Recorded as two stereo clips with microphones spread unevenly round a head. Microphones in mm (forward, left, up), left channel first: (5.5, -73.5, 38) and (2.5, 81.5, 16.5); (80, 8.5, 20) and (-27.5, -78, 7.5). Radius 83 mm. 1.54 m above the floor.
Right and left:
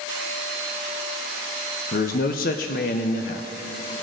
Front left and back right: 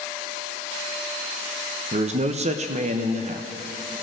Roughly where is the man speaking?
Right.